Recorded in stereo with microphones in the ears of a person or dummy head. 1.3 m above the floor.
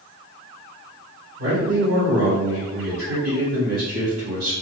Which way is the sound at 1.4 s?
45° right (ahead or behind).